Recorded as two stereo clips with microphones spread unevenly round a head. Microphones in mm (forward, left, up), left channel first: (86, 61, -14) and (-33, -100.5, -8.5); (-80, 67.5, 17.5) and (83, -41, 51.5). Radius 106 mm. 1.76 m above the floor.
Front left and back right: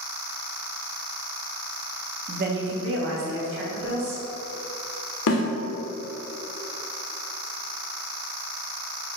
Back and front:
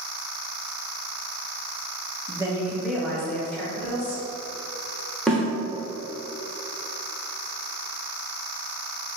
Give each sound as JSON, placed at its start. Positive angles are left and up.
{"t": 2.3, "sound": "a woman speaking", "azimuth_deg": -90, "distance_m": 0.7}
{"t": 5.3, "sound": "a snare drum", "azimuth_deg": 60, "distance_m": 1.1}